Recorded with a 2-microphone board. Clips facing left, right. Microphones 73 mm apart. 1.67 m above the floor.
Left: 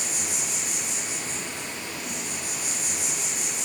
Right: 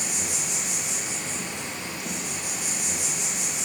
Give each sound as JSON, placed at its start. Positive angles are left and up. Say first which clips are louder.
{"t": 0.0, "sound": "an insect", "louder": "right 1 dB", "side_deg": -20, "distance_m": 0.9}